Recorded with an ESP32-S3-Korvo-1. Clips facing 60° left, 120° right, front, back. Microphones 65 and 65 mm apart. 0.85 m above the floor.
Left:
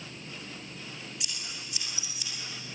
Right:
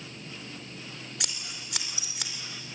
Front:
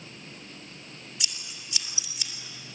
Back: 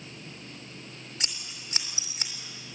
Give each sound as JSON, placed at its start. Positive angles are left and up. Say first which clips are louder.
{"t": 1.2, "sound": "scissors", "louder": "right 1 dB, even", "azimuth_deg": -130, "distance_m": 3.0}